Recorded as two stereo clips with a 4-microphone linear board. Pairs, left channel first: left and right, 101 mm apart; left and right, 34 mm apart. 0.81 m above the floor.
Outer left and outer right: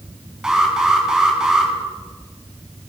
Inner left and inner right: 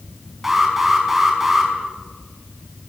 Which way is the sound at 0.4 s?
5° right (ahead or behind).